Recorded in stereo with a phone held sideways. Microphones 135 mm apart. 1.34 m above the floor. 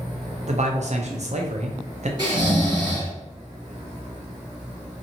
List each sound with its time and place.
0.5 s a man speaking: 55° right (ahead or behind), 0.6 m
2.2 s snoring: 30° right (ahead or behind), 1.4 m